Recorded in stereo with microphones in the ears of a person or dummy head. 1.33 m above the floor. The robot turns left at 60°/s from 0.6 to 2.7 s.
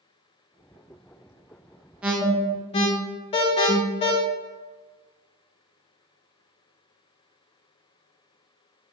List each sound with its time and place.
2.0 s an alarm: 10° right (ahead or behind), 0.5 m; by 4.1 s 30° left (ahead or behind), 0.5 m